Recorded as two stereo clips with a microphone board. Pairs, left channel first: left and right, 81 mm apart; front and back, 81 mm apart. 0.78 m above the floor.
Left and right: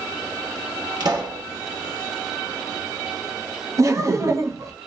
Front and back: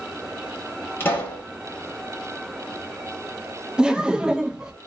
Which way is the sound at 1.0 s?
60° right.